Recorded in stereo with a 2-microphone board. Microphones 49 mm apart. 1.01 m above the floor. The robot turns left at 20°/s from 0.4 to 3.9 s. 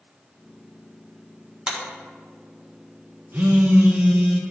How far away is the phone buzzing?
About 1.0 m.